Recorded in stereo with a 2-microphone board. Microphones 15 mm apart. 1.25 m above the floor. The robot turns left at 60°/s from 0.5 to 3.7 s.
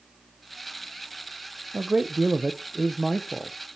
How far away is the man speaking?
About 0.6 m.